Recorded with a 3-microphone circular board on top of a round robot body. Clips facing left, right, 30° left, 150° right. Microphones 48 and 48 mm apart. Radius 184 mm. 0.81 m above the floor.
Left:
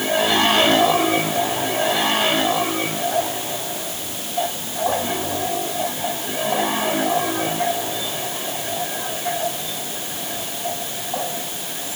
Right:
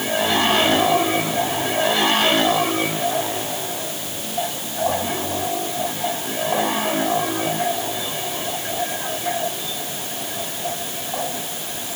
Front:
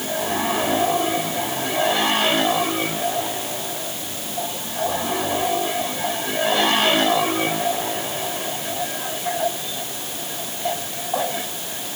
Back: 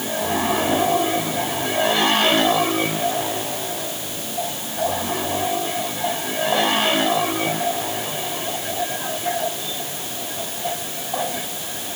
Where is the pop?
No pop in this recording.